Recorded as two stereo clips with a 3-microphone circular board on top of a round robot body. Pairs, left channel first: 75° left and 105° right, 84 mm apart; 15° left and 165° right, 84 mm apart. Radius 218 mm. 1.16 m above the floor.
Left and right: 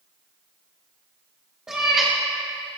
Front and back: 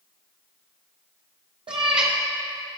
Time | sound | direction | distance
1.7 | a cat meowing | 175° left | 0.5 m